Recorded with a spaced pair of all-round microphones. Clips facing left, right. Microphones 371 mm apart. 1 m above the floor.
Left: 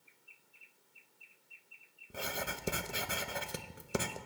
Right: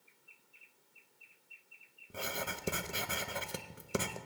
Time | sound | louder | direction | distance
2.1 | writing | even | centre (ahead or behind) | 0.6 m